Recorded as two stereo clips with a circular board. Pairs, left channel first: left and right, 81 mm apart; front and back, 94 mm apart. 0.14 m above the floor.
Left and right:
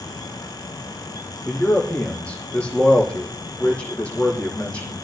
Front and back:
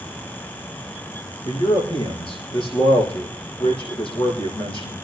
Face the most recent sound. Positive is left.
turn(degrees=20)